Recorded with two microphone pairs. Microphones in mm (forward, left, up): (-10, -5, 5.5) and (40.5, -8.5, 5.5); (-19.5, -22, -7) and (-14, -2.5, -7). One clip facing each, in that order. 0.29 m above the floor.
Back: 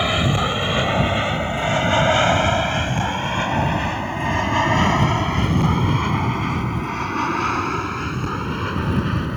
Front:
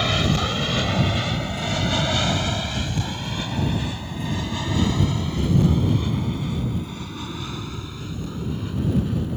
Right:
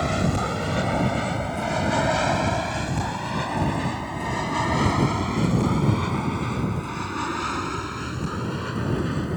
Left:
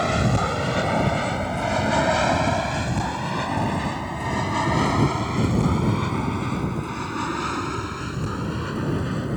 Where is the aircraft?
130° left; by 9.4 s 165° left.